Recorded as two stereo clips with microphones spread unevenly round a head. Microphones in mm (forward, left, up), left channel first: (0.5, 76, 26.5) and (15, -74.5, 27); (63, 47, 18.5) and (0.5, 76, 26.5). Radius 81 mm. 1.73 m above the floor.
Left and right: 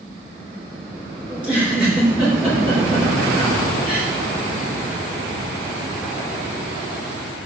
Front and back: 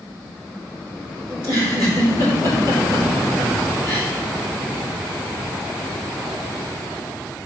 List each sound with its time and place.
1.3 s a giggle: 165° right, 4 m